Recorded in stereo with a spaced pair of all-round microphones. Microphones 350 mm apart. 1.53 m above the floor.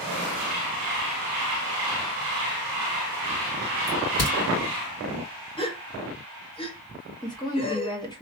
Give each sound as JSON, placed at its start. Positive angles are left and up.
{"t": 3.9, "sound": "a crack", "side_deg": 45, "distance_m": 1.6}
{"t": 5.6, "sound": "a gasp", "side_deg": 15, "distance_m": 0.5}
{"t": 7.2, "sound": "a woman speaking", "side_deg": 10, "distance_m": 0.9}